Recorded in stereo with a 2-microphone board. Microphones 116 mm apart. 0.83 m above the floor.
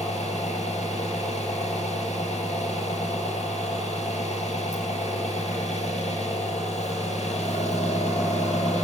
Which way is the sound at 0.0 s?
70° left (ahead or behind).